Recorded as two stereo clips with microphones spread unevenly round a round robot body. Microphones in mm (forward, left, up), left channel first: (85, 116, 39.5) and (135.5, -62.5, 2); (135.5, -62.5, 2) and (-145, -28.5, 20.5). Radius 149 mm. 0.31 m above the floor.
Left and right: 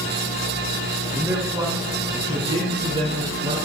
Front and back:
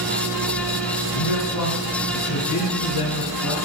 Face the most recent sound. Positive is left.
turn(degrees=-20)